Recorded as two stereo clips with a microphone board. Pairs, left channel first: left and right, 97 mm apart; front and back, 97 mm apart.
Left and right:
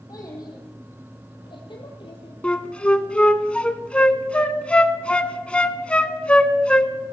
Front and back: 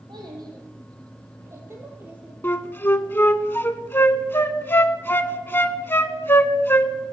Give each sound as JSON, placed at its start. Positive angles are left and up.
{"t": 0.1, "sound": "a child speaking", "azimuth_deg": 140, "distance_m": 4.0}
{"t": 2.4, "sound": "a flute", "azimuth_deg": 30, "distance_m": 0.5}